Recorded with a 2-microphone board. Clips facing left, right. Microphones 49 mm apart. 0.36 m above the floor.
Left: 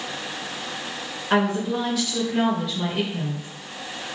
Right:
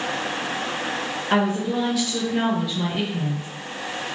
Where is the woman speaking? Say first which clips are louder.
Even; centre (ahead or behind), 1.1 m.